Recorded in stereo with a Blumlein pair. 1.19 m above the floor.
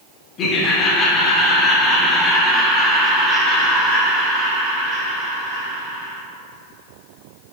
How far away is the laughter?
About 1.7 m.